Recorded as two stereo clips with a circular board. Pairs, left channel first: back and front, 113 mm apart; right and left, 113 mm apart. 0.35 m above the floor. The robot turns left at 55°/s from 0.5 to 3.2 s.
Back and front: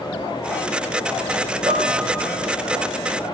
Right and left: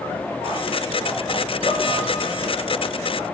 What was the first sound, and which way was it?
Dishes clattering, 55° right.